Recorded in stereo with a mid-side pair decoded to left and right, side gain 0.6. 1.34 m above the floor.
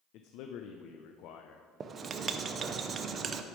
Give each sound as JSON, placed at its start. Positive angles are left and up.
{"t": 0.1, "sound": "a man speaking", "azimuth_deg": 65, "distance_m": 0.6}
{"t": 1.8, "sound": "writing", "azimuth_deg": -40, "distance_m": 0.6}